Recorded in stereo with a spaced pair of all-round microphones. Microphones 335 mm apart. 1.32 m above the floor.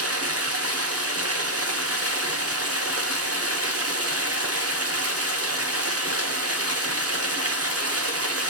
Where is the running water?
45° right (ahead or behind), 1.2 m.